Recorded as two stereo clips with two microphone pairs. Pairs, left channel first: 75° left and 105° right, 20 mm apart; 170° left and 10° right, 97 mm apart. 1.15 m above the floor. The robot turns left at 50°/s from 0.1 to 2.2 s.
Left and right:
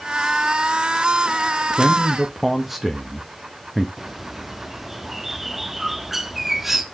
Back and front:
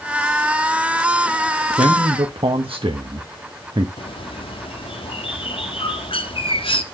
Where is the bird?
175° left, 1.1 m.